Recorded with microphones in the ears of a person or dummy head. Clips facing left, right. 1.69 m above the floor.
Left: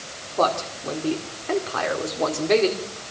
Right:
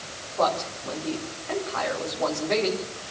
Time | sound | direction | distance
0.4 | a man speaking | 50° left (ahead or behind) | 4.5 m